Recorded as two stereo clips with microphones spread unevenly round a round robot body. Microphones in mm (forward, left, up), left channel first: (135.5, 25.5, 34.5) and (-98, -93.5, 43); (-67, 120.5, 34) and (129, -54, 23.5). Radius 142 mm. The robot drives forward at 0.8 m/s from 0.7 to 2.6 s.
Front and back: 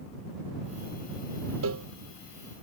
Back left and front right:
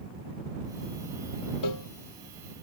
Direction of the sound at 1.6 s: 160° left.